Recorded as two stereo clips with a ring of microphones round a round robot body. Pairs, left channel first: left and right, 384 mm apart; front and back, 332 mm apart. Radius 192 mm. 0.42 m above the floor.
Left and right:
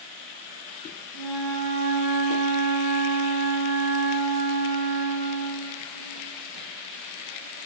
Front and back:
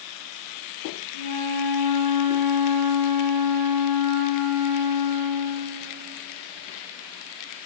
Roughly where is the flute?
Behind left.